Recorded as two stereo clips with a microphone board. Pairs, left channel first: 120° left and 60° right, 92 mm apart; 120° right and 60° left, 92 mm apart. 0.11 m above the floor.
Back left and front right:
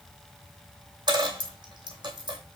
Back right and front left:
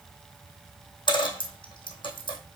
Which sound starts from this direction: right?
A dropped coin, at 1.1 s.